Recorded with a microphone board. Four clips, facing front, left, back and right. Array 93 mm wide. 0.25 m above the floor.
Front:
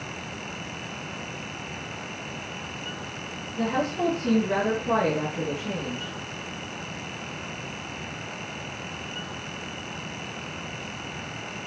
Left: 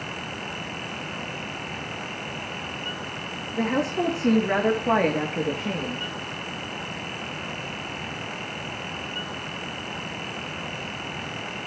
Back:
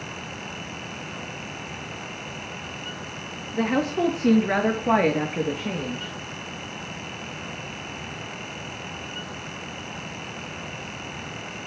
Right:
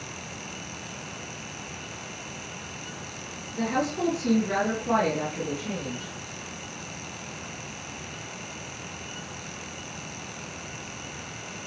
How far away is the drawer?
I don't hear a drawer.